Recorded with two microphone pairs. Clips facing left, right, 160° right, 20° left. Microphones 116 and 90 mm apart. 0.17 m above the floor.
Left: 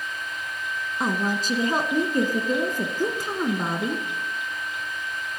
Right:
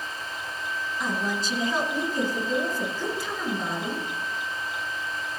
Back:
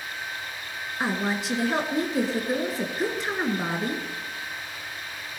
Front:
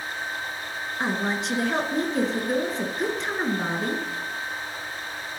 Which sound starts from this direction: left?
A woman speaking, at 1.0 s.